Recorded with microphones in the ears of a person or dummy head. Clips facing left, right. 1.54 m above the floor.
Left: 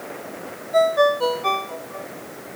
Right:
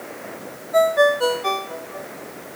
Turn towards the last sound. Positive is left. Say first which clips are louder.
# right 1 dB
turn(degrees=-10)  # may be behind; listen again after turning